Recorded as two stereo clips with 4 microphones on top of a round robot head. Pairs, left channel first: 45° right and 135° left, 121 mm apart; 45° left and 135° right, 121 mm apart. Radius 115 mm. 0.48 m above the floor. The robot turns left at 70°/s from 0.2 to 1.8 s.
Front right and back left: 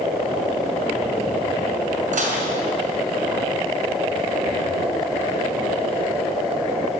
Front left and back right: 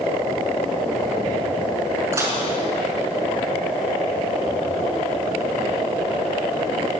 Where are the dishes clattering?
155° left, 5 m.